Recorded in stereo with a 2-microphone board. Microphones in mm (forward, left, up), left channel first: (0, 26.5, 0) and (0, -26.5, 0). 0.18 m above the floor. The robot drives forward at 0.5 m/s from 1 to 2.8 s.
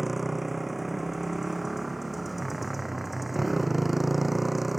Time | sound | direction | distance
0.0 | a motorcycle | centre (ahead or behind) | ?